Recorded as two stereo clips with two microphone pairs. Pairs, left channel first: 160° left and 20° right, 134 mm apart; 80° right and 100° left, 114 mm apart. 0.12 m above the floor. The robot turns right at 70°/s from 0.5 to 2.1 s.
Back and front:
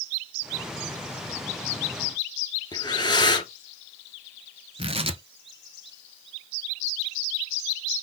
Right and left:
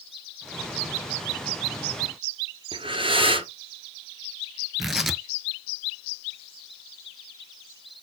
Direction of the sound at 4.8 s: 10° left.